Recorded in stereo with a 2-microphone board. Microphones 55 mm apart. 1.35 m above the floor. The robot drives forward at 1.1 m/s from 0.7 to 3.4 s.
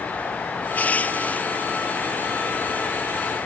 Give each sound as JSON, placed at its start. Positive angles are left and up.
{"t": 0.8, "sound": "crushing", "side_deg": 30}